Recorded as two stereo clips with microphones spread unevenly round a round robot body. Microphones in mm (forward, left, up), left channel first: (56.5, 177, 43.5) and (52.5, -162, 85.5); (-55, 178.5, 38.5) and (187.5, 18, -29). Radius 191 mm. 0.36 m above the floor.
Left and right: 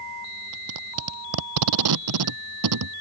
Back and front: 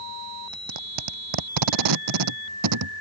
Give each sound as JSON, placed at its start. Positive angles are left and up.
{"t": 0.5, "sound": "tape being pulled", "azimuth_deg": -60}